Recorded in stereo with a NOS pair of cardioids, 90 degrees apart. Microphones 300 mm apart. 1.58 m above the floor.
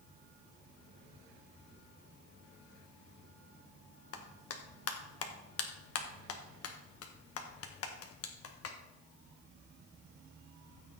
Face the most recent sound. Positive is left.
turn(degrees=50)